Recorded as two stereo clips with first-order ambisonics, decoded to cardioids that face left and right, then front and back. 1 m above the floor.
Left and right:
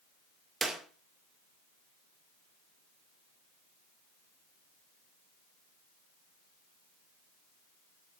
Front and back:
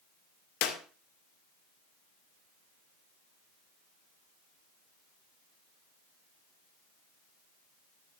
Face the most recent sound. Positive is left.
turn(degrees=-15)